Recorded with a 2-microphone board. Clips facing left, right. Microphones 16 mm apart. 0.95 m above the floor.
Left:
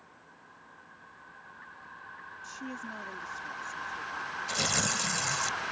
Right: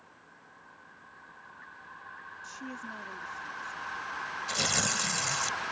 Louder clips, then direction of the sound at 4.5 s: Even; 5° right (ahead or behind).